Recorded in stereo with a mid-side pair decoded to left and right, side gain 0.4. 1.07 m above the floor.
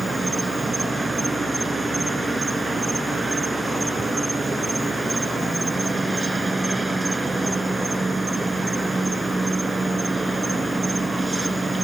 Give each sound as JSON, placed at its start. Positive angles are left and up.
{"t": 0.0, "sound": "an insect", "azimuth_deg": -25}